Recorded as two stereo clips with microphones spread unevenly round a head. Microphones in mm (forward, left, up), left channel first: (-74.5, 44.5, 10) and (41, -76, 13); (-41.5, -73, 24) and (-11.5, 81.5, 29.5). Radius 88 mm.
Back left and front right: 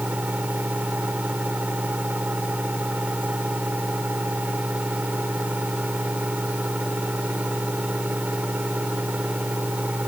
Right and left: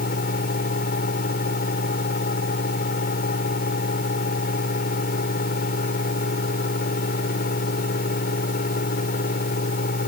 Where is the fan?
130° right.